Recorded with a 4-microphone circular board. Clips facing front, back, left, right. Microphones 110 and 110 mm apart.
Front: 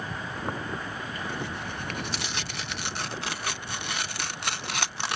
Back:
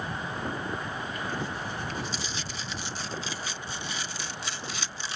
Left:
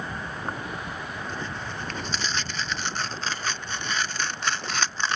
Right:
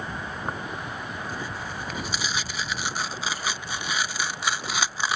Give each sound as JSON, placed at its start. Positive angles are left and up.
{"t": 0.5, "sound": "tearing paper", "azimuth_deg": -10}